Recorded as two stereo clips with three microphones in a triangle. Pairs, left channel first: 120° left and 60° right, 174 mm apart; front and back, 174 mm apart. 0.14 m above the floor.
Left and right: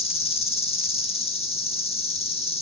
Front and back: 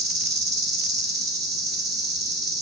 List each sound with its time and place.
0.0 s an insect: 175° left, 0.8 m